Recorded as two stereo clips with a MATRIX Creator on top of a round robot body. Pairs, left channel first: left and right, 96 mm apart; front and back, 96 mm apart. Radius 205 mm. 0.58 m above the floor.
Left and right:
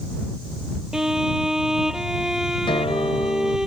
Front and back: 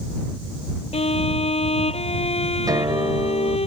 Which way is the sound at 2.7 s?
130° left.